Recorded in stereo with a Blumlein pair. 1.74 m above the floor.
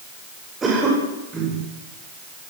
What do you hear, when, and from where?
0.6 s a cough: 15° right, 9 m